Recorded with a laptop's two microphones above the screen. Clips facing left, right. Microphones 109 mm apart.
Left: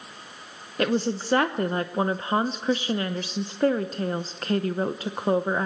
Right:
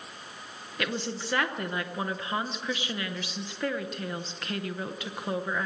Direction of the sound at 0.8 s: 35° left (ahead or behind).